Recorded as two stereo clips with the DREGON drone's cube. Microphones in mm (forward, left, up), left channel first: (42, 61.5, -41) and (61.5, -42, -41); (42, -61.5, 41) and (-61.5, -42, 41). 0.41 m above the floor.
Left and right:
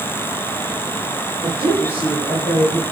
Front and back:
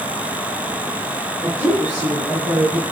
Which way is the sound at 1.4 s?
100° right.